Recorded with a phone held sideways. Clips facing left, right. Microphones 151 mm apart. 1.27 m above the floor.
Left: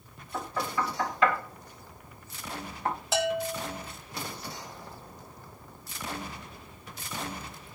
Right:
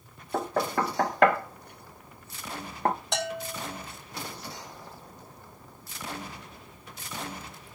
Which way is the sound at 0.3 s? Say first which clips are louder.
Right 5 dB; 60° right (ahead or behind).